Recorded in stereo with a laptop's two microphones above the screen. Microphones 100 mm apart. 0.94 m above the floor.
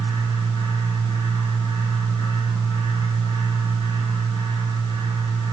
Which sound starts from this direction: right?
A fan, at 0.0 s.